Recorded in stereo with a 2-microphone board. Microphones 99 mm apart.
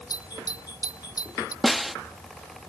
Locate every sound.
0.1 s a doorbell: 40° left (ahead or behind)
1.6 s a snare drum: centre (ahead or behind)